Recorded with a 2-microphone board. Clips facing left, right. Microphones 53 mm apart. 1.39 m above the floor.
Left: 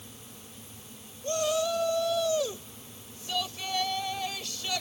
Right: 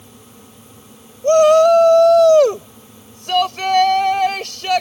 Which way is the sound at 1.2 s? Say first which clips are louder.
Right 19 dB; 75° right (ahead or behind).